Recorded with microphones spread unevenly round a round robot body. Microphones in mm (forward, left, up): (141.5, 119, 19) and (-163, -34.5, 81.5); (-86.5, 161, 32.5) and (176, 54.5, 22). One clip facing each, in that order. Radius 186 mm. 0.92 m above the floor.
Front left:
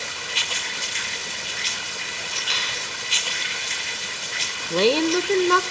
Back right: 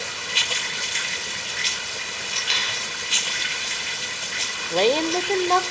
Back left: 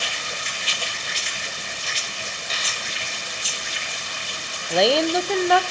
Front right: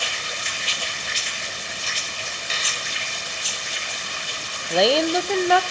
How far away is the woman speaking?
About 0.6 m.